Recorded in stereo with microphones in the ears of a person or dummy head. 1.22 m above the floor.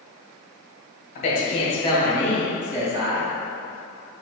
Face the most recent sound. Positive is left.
turn(degrees=-30)  # may be behind; listen again after turning